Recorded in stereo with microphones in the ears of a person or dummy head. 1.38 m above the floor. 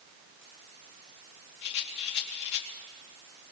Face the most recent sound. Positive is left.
turn(degrees=65)  # may be behind; listen again after turning